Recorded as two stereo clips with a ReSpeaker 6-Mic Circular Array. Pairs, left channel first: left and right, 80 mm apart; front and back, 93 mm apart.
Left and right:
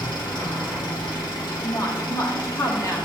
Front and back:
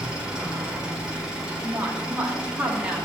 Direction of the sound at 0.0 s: 100° left.